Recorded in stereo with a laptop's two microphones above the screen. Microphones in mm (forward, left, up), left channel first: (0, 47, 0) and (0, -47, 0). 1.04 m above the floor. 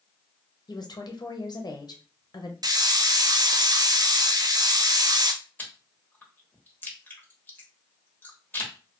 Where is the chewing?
20° left (ahead or behind), 1.0 m.